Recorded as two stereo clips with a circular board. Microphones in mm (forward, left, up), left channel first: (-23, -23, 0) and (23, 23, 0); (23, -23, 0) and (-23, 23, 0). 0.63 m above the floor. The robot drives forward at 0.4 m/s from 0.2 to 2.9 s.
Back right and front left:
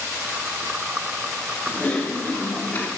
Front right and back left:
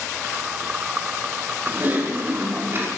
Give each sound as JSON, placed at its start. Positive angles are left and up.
{"t": 1.7, "sound": "typing on a keyboard", "azimuth_deg": 170, "distance_m": 1.5}